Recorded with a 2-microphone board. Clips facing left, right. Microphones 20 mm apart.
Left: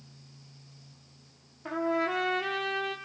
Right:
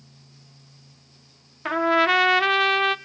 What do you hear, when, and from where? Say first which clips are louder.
1.6 s a trumpet: right 10 dB; 75° right (ahead or behind), 0.7 m